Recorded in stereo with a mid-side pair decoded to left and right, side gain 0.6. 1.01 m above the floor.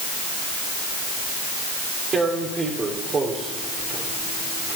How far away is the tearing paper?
About 3 m.